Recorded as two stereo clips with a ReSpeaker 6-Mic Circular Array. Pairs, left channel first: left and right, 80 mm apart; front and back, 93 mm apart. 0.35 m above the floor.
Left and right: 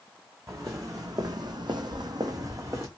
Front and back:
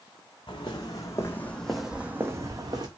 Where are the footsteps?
35° right, 1.0 m; by 2.9 s 140° right, 0.9 m.